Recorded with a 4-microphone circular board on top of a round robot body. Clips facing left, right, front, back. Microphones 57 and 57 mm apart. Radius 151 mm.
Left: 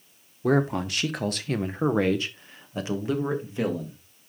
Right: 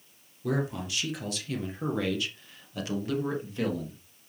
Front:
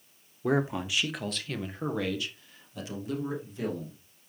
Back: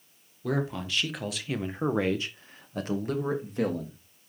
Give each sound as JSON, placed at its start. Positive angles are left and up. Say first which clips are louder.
{"t": 0.4, "sound": "a man speaking", "louder": "left 7 dB, front 2 dB", "azimuth_deg": 60, "distance_m": 1.4}